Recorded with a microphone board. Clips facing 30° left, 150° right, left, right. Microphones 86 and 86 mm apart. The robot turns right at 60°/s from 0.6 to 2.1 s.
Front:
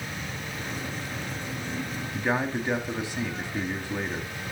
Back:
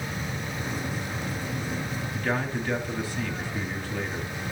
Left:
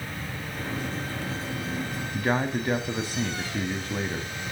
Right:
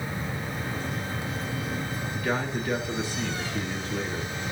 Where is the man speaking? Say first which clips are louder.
Front 2 dB, left 3 dB; 90° left, 1.2 m.